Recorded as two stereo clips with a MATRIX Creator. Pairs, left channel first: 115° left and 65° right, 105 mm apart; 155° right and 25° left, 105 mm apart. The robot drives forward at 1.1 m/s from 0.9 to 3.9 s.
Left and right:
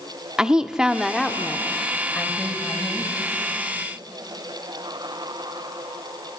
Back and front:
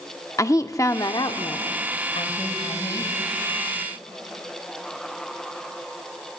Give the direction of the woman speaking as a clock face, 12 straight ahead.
5 o'clock.